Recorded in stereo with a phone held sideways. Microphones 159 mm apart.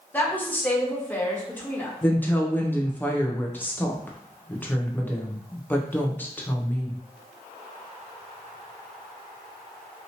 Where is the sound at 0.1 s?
10° left (ahead or behind), 1.0 m.